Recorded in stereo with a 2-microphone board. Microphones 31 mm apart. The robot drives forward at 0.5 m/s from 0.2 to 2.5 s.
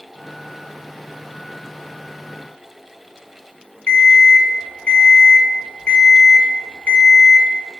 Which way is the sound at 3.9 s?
55° left (ahead or behind).